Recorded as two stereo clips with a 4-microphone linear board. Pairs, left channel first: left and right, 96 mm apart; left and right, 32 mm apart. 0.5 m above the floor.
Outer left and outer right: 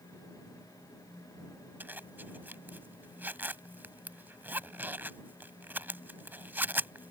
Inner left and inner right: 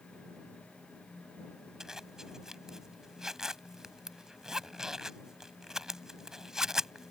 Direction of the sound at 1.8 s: 20° right (ahead or behind).